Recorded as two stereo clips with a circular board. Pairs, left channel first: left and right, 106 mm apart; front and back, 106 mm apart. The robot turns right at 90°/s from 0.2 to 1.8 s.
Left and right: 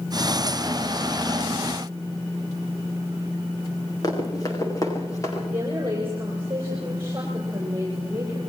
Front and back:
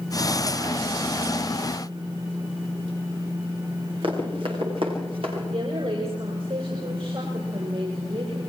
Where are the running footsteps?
145° left, 7 m; by 5.4 s 150° left, 8 m.